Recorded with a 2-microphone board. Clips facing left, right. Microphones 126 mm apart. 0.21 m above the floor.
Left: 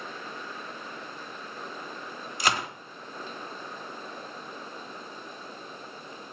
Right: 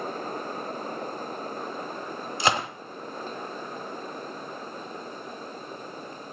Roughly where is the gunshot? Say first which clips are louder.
Right 3 dB; right.